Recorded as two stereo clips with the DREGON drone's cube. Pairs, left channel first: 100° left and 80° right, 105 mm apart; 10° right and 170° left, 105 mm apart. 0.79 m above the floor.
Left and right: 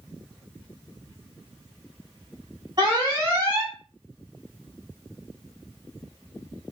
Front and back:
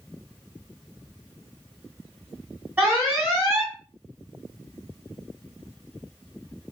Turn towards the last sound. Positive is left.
turn(degrees=-125)